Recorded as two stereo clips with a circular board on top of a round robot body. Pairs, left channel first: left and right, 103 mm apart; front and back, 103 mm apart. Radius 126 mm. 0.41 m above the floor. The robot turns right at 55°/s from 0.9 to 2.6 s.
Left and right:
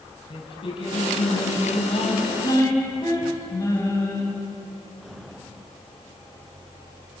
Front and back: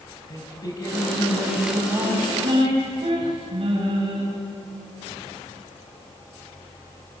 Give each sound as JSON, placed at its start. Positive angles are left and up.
{"t": 0.3, "sound": "singing", "azimuth_deg": 55, "distance_m": 4.5}